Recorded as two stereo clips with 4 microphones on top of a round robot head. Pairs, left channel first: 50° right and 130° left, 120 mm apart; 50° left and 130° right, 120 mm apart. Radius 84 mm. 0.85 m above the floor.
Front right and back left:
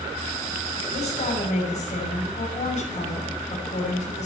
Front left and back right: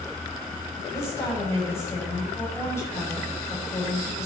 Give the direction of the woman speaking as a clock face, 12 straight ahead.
1 o'clock.